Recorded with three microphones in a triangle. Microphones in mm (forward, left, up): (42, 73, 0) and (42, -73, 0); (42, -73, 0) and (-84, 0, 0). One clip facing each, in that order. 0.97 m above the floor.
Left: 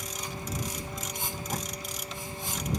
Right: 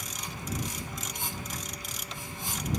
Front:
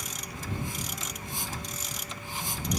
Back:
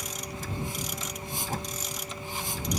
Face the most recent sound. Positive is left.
turn(degrees=115)